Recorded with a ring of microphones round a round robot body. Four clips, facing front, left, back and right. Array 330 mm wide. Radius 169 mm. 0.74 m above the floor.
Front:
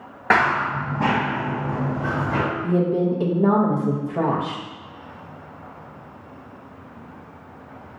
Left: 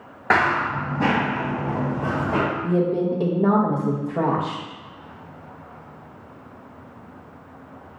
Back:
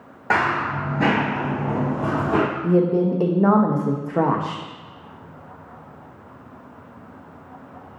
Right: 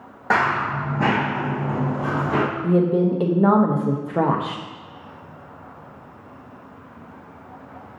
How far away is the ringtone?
No ringtone in this recording.